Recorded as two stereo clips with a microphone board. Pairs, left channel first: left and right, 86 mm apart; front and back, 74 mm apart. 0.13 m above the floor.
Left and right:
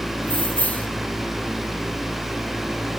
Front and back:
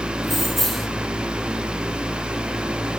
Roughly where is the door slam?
No door slam in this recording.